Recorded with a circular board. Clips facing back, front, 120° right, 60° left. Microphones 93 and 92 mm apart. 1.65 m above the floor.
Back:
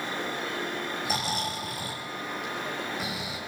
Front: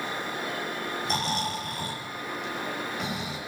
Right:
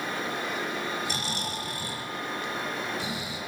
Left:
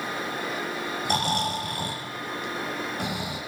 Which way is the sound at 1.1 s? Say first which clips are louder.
Front 3 dB, left 7 dB; 95° left.